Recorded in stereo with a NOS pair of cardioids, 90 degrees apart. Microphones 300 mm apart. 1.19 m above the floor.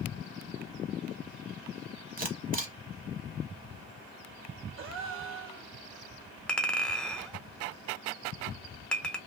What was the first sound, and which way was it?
A camera shutter, 30° right.